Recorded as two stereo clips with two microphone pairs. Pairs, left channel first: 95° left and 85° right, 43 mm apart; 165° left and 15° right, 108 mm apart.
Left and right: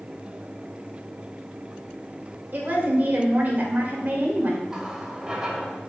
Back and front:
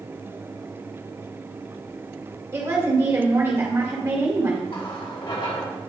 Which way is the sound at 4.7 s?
160° right.